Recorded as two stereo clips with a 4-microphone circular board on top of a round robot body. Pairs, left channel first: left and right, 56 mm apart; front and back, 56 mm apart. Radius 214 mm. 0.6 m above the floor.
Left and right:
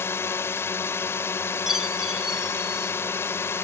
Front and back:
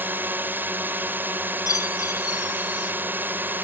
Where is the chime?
10° right.